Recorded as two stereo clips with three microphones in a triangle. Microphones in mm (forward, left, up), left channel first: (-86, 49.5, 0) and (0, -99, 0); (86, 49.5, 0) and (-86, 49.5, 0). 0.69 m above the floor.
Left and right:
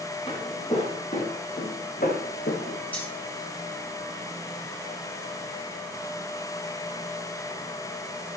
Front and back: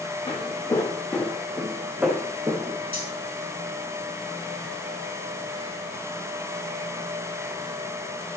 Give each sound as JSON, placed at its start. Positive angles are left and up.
{"t": 0.3, "sound": "footsteps", "azimuth_deg": 65, "distance_m": 2.5}
{"t": 2.9, "sound": "cutlery clinking", "azimuth_deg": -160, "distance_m": 3.0}